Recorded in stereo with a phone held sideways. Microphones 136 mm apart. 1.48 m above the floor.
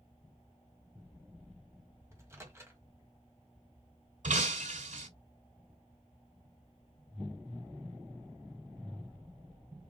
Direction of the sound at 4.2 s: 70° right (ahead or behind).